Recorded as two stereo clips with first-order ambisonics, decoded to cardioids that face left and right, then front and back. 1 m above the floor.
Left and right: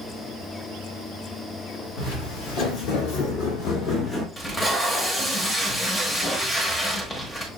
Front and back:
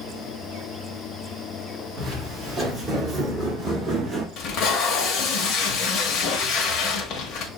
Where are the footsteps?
105° left, 3.5 m; by 4.3 s 155° left, 1.0 m.